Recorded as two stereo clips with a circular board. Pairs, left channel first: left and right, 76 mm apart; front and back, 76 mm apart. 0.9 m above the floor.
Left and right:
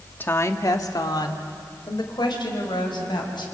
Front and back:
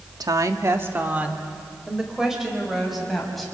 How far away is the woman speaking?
About 1.4 m.